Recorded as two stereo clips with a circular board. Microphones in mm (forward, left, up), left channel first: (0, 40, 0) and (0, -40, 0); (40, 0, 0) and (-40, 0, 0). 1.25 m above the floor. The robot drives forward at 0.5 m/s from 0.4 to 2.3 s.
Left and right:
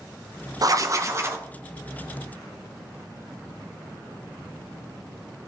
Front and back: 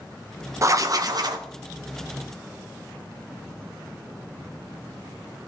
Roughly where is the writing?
Behind right.